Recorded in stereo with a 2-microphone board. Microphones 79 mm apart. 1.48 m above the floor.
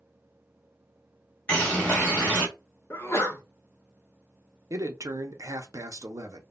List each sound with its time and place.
1.5 s a bird: 20° left (ahead or behind), 1.2 m
2.9 s a sneeze: 30° left (ahead or behind), 0.8 m
4.7 s a man speaking: 40° right (ahead or behind), 0.5 m